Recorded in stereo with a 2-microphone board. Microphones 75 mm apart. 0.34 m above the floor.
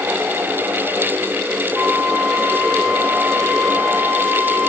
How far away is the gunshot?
No gunshot in this recording.